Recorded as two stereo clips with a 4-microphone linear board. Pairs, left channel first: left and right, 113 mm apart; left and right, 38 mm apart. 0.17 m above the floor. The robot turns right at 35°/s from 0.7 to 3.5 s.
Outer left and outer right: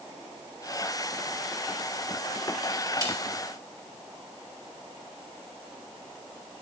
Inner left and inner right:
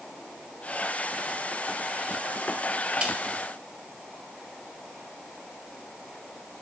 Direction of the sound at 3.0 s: 30° right (ahead or behind).